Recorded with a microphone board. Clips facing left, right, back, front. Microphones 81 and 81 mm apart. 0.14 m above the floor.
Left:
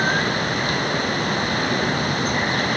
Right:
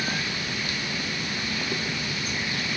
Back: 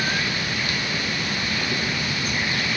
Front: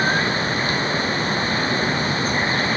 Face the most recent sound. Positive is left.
turn(degrees=55)